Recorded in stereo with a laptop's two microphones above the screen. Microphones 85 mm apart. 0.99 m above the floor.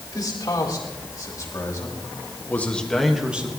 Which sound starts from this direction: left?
A man speaking, at 0.1 s.